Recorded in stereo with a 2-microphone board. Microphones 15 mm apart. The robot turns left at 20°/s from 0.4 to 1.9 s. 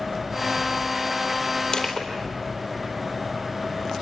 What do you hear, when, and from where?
1.7 s crushing: 45° left (ahead or behind), 4 m; by 2.1 s 50° left (ahead or behind), 4 m